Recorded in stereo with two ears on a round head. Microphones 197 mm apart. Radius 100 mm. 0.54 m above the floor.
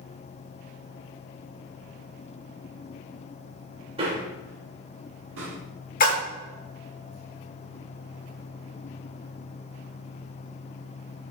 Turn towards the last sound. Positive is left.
turn(degrees=40)  # may be behind; listen again after turning